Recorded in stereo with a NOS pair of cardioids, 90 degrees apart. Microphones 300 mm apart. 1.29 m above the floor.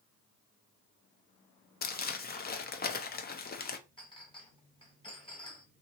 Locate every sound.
1.8 s crumpling: 30° left, 0.6 m
4.0 s a clink: 15° left, 1.4 m